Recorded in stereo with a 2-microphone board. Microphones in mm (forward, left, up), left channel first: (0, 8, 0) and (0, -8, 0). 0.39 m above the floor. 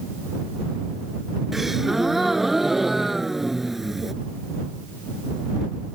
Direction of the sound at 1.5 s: 20° right (ahead or behind).